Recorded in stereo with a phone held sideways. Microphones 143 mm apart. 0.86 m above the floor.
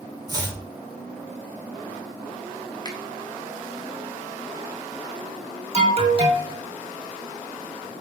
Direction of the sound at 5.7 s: 45° right (ahead or behind).